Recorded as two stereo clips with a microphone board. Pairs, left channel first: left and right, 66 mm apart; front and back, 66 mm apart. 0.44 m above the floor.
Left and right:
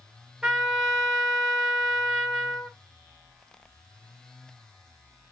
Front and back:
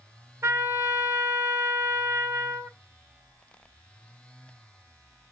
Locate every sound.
0.4 s a trumpet: 170° right, 1.3 m